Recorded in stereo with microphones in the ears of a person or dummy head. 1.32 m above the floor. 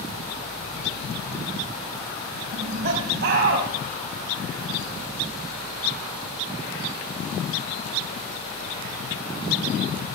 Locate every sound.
2.5 s laughter: 60° right (ahead or behind), 6.5 m